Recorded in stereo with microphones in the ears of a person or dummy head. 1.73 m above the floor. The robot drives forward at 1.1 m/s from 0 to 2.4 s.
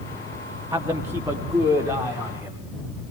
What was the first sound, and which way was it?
A man speaking, 15° right (ahead or behind).